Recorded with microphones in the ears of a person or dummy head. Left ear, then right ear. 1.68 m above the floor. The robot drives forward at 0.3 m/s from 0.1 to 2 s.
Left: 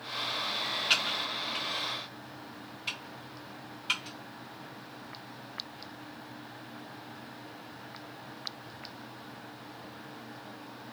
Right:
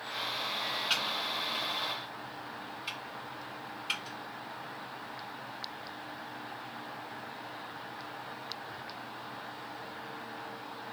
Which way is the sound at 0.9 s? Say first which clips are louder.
Left 4 dB; 10° left (ahead or behind).